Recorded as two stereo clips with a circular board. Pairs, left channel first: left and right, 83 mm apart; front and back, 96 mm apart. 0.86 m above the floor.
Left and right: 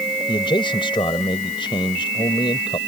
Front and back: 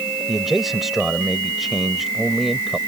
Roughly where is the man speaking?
Left.